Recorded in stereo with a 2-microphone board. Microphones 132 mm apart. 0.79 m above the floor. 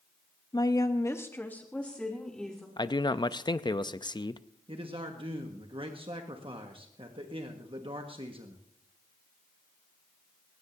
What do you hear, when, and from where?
0.5 s a woman speaking: 25° left (ahead or behind), 0.8 m; by 2.7 s 5° left (ahead or behind), 2.5 m
2.8 s a man speaking: 30° left (ahead or behind), 0.5 m
4.7 s a man speaking: 40° right (ahead or behind), 1.3 m